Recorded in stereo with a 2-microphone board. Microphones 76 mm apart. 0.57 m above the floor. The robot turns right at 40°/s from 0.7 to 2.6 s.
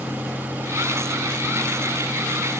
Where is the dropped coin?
I don't hear a dropped coin.